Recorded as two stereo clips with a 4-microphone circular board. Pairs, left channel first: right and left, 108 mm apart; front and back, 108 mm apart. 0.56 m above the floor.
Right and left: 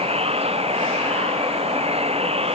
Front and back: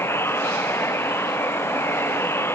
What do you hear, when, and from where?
0.0 s running water: 70° left